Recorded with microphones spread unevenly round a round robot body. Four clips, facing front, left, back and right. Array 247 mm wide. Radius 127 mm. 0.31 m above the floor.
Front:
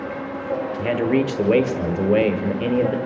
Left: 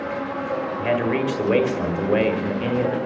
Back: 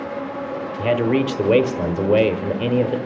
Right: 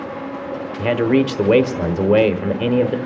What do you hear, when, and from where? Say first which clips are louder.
0.8 s a man speaking: right 7 dB, back 2 dB; 125° right, 0.9 m